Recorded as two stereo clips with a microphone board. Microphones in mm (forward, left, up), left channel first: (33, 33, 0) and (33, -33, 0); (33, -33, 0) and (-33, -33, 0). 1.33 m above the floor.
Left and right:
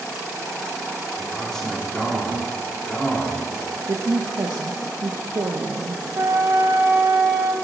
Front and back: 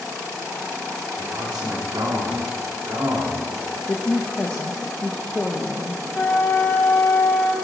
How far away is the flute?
About 2.5 m.